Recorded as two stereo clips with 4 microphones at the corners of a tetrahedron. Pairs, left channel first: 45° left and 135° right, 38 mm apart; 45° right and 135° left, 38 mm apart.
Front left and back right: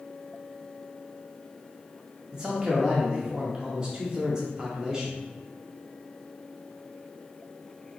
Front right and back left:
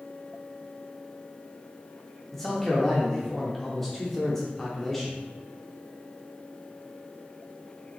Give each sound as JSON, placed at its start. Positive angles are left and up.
{"t": 2.3, "sound": "a man speaking", "azimuth_deg": -110, "distance_m": 0.7}